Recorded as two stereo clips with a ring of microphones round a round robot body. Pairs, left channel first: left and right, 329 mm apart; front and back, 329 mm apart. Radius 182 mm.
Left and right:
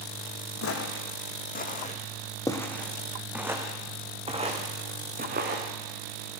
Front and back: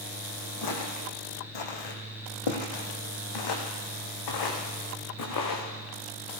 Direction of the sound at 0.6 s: 40° left.